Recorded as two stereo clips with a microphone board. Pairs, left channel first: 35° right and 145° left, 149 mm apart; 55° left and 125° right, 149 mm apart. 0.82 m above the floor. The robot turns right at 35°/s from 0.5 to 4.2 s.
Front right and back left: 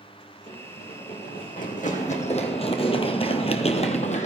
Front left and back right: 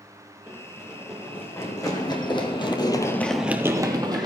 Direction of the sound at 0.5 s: 50° right.